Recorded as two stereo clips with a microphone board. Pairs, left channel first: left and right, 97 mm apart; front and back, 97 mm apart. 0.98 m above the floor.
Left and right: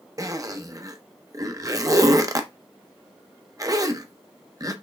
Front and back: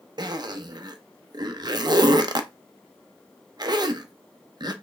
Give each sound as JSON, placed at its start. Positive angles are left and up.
{"t": 0.2, "sound": "a zipper", "azimuth_deg": -140, "distance_m": 0.5}